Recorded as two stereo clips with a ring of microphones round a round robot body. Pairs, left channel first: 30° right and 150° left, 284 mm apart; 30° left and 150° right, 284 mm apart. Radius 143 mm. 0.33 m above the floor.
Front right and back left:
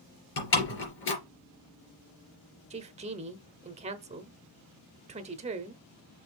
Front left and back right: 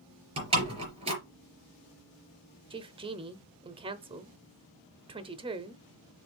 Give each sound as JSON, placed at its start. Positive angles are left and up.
{"t": 0.4, "sound": "a door slam", "azimuth_deg": -80, "distance_m": 3.5}
{"t": 2.7, "sound": "a woman speaking", "azimuth_deg": 170, "distance_m": 0.8}